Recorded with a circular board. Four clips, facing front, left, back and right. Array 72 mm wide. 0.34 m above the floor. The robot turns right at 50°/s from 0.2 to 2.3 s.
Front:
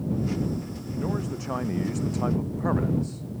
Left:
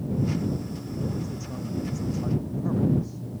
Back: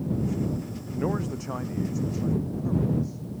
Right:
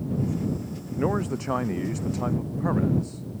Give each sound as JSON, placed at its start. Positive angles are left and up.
{"t": 1.0, "sound": "a man speaking", "azimuth_deg": -105}